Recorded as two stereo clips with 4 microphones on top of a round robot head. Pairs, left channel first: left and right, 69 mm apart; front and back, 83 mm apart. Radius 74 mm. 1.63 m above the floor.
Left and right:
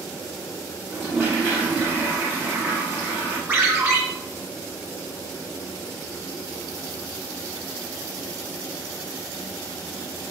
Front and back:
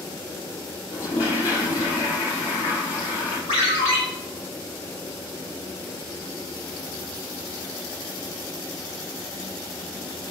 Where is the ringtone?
15° right, 1.7 m.